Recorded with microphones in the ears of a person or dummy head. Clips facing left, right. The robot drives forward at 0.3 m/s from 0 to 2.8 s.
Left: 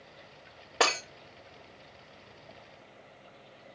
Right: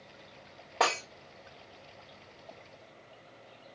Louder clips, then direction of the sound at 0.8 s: Left 1 dB; 15° left (ahead or behind).